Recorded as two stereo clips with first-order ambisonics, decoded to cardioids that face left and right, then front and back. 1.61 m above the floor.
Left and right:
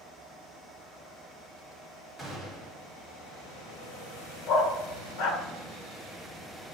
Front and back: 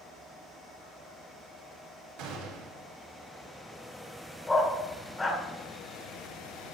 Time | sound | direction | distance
2.2 | a gunshot | 170° left | 3 m
4.5 | a dog barking | 80° left | 1.8 m